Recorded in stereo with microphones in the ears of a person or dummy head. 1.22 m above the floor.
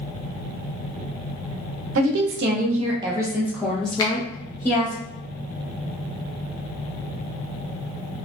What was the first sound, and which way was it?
A woman speaking, 75° right (ahead or behind).